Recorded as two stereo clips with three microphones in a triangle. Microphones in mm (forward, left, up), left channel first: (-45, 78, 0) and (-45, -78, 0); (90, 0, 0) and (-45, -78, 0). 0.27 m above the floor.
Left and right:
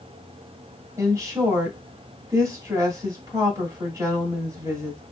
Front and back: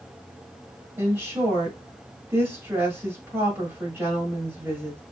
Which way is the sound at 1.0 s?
105° right.